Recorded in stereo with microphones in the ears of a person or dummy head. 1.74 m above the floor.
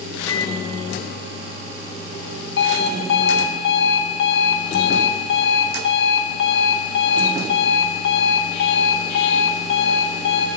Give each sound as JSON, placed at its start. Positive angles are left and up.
{"t": 0.3, "sound": "a microwave", "side_deg": 20, "distance_m": 3.5}
{"t": 2.6, "sound": "an alarm clock", "side_deg": 80, "distance_m": 6.5}